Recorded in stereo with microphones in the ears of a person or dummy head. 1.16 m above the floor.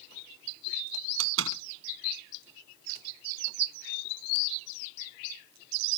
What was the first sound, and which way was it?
A door slam, 85° right.